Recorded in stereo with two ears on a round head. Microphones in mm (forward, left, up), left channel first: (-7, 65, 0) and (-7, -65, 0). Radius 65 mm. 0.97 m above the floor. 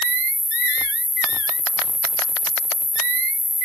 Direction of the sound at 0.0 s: 70° left (ahead or behind).